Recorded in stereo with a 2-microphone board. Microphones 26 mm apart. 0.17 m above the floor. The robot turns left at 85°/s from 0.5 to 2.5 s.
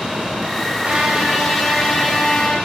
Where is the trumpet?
125° right, 9 m; by 2.5 s 95° left, 9 m.